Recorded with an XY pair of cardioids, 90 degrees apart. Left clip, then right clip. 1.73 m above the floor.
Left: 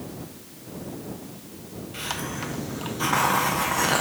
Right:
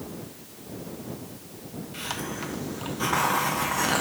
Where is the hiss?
15° left.